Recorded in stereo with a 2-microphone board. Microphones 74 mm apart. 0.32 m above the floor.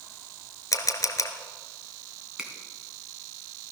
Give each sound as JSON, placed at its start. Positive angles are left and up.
{"t": 0.7, "sound": "a camera shutter", "side_deg": 55, "distance_m": 1.3}
{"t": 2.4, "sound": "a finger snap", "side_deg": -10, "distance_m": 3.0}